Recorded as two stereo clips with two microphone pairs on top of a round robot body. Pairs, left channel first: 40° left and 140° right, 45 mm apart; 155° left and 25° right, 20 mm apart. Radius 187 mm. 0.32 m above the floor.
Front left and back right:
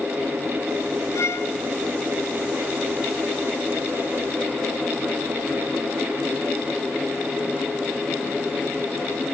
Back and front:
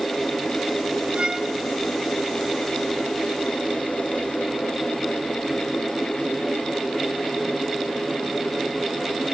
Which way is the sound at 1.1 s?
20° left.